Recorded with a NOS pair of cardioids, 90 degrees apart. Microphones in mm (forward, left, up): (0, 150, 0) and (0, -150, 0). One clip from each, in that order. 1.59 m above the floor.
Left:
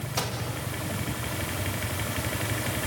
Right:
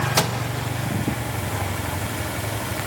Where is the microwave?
55° right, 2 m.